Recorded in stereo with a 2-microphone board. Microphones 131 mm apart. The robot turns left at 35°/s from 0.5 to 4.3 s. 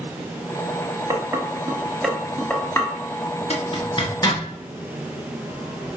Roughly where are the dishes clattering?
Right.